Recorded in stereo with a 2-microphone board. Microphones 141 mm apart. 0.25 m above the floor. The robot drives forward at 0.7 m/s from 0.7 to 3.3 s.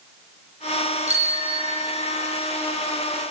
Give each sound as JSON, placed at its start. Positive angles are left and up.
{"t": 1.1, "sound": "a bicycle bell", "side_deg": -50, "distance_m": 2.0}